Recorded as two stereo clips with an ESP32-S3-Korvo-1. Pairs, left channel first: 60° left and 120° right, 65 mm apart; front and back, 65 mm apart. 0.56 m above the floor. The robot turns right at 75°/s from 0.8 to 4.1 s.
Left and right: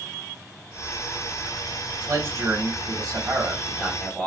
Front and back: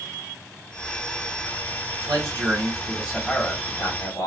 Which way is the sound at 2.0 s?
165° right.